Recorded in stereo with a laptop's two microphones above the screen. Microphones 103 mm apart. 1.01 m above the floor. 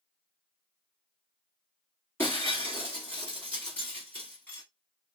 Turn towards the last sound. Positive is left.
turn(degrees=20)  # may be behind; listen again after turning